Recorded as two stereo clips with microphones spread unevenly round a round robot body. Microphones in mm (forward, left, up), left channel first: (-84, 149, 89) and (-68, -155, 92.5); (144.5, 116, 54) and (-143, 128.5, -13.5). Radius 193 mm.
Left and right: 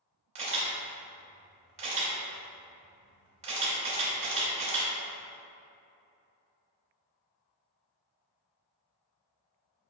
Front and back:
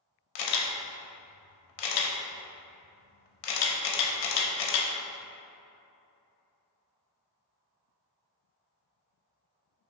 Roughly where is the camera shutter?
Ahead.